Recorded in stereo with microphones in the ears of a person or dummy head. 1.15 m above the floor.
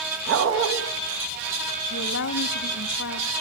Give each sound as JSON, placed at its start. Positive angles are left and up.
{"t": 0.3, "sound": "a dog barking", "side_deg": -65, "distance_m": 4.5}
{"t": 1.9, "sound": "a woman speaking", "side_deg": 55, "distance_m": 1.2}